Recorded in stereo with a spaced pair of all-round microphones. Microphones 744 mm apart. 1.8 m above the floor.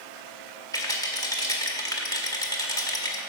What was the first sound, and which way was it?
A rattle, 5° left (ahead or behind).